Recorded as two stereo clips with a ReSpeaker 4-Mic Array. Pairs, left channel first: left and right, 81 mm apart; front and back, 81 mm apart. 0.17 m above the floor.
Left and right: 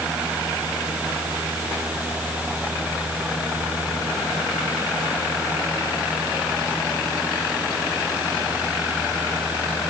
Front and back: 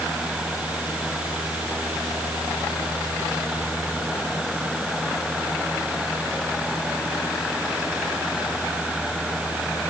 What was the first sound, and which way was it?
Only background noise.